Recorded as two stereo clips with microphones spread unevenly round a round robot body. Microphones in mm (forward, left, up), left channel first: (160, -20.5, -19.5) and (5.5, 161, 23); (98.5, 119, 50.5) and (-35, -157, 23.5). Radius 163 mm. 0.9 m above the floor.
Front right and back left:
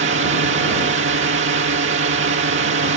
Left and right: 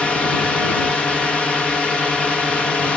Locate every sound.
0.0 s a drone: 155° left